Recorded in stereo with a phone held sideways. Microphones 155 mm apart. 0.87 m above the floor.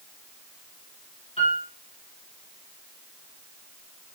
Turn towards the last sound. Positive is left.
turn(degrees=35)  # may be behind; listen again after turning